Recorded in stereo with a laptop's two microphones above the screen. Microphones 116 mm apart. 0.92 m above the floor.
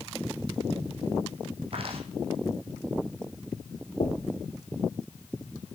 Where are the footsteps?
55° right (ahead or behind), 2 m.